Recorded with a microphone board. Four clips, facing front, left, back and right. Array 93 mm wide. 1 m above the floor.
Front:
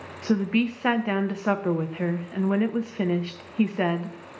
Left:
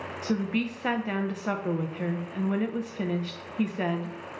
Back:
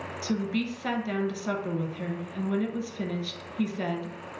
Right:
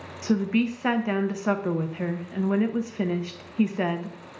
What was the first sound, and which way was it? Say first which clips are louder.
A woman speaking: right 5 dB, front 6 dB; 20° right.